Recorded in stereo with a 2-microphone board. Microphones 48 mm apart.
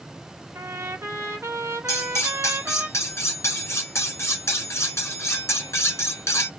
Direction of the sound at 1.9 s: 80° left.